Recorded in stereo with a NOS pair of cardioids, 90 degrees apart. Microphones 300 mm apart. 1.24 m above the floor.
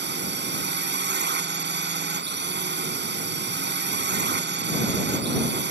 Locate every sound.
0.0 s a drone: 35° right